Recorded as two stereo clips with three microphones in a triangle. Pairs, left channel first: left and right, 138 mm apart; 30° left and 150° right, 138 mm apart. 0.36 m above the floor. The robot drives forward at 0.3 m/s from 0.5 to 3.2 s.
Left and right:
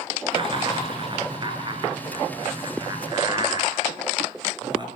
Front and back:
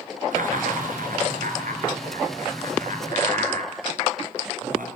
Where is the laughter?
140° right, 5 m; by 4.9 s 145° right, 5.5 m.